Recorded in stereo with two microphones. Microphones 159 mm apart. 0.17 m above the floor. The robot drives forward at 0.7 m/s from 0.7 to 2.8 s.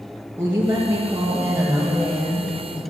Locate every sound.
0.4 s a woman speaking: 15° right (ahead or behind), 3 m; by 2.8 s 10° right (ahead or behind), 4.5 m